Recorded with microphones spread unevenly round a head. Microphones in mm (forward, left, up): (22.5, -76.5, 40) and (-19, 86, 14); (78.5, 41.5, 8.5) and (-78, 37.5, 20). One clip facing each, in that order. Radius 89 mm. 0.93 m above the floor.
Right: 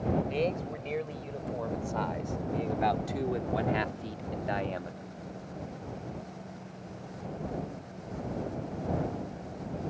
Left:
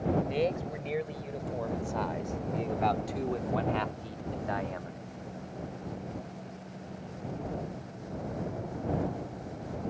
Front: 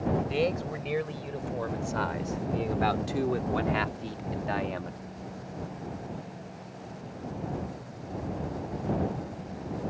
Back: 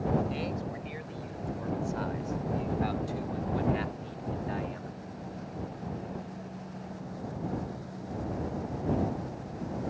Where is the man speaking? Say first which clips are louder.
Left 1 dB, front 6 dB; 20° left; by 4.9 s 25° right.